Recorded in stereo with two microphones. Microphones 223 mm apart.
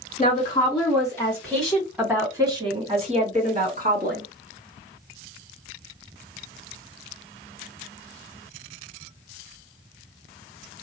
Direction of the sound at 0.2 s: 25° left (ahead or behind).